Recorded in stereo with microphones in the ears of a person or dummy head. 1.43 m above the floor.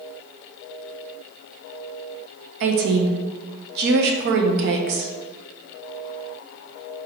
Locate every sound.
2.6 s a woman speaking: 60° right (ahead or behind), 0.6 m